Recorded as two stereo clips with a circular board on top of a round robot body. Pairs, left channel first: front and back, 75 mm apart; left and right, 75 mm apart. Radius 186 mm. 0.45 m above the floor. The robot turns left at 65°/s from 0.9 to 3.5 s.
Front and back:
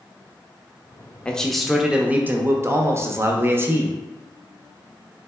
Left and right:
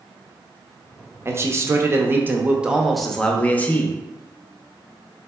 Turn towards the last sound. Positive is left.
turn(degrees=145)